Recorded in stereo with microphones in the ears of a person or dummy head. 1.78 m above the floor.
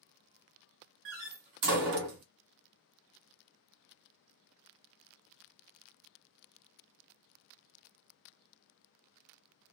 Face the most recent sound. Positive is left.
turn(degrees=-60)  # may be behind; listen again after turning